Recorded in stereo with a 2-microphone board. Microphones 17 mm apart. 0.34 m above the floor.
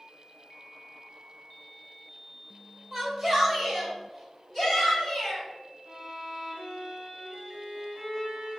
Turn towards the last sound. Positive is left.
turn(degrees=-55)  # may be behind; listen again after turning